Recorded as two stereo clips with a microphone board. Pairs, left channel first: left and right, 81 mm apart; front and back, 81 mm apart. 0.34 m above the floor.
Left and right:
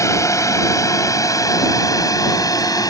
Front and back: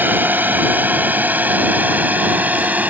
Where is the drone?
120° left; by 2.9 s 115° left.